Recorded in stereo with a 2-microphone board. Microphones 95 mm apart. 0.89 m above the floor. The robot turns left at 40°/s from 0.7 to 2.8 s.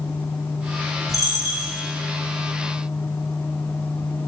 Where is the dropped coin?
35° left (ahead or behind), 1.9 m; by 1.7 s 60° left (ahead or behind), 1.9 m.